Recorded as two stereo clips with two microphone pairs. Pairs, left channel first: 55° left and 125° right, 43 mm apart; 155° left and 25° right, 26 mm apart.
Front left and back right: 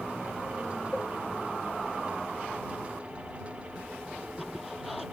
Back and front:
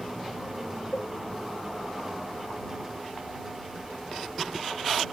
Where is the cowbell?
140° left.